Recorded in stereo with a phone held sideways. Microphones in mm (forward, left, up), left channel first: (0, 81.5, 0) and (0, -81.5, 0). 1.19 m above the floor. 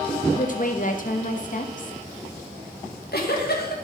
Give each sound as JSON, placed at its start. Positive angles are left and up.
{"t": 0.3, "sound": "a woman speaking", "side_deg": 55, "distance_m": 1.1}
{"t": 2.8, "sound": "a giggle", "side_deg": 75, "distance_m": 1.8}